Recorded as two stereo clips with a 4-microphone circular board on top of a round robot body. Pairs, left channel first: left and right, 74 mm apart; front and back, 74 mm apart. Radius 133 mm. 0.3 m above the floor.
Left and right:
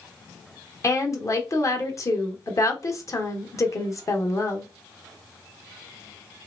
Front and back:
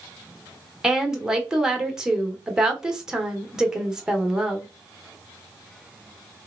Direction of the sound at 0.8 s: 100° left.